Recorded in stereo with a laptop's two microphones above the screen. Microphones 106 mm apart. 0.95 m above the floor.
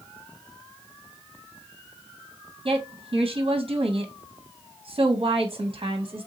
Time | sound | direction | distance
2.6 | a woman speaking | 50° right (ahead or behind) | 0.6 m